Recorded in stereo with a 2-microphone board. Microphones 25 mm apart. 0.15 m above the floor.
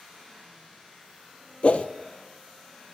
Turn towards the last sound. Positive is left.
turn(degrees=50)  # may be behind; listen again after turning